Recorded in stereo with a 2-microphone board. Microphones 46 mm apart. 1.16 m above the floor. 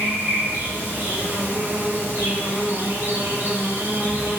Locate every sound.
0.0 s an insect: 55° right (ahead or behind), 6.5 m